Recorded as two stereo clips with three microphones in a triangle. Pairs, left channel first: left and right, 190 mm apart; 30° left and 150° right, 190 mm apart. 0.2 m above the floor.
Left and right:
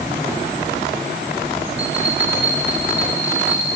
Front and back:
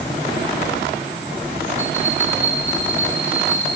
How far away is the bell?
About 3.5 m.